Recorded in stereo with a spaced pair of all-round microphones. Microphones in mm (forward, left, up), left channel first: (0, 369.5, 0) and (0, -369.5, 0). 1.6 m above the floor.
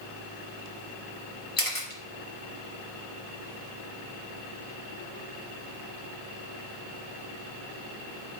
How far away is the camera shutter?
About 1.7 m.